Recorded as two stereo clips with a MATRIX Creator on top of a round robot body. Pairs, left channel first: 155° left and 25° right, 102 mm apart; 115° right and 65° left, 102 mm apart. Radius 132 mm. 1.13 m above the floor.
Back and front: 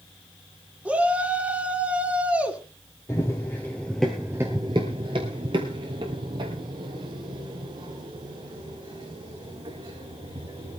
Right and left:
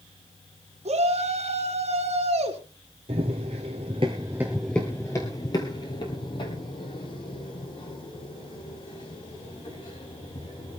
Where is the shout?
55° left, 3 m.